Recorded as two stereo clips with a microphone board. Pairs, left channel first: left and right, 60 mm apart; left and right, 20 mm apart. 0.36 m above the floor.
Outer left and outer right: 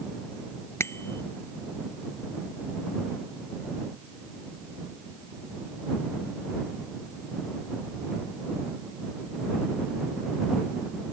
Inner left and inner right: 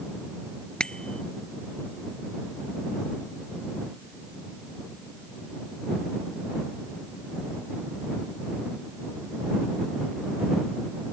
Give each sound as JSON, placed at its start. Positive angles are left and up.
{"t": 0.8, "sound": "a bicycle bell", "side_deg": 45}